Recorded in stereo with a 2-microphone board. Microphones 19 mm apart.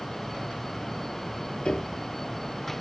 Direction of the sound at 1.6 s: 45° left (ahead or behind).